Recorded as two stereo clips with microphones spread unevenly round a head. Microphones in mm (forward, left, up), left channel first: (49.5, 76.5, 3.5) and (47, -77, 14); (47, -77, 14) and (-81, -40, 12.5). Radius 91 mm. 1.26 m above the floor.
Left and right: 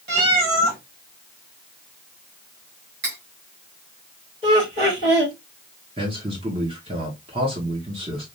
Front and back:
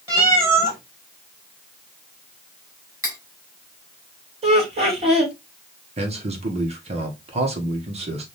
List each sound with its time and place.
0.1 s a cat meowing: 125° right, 3 m
3.0 s cutlery clinking: 130° right, 3.5 m
4.4 s laughter: 150° right, 3 m
6.0 s a man speaking: 155° right, 1.5 m